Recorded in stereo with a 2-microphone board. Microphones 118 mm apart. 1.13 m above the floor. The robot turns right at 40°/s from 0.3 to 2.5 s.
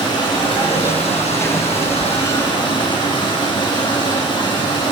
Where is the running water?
45° left, 1.9 m; by 4.9 s 130° left, 1.9 m.